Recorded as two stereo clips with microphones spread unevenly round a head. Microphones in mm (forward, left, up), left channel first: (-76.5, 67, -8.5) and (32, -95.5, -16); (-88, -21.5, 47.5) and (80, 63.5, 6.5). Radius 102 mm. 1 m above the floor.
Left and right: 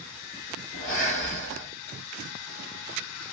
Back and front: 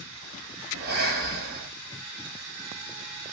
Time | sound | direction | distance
0.7 | breathing | 70° left | 1.1 m